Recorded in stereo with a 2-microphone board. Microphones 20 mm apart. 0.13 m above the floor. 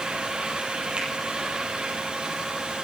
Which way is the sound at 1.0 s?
70° right (ahead or behind).